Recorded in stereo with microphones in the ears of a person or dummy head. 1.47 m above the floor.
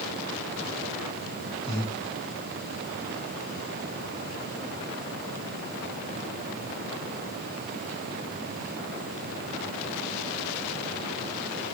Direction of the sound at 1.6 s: 25° left (ahead or behind).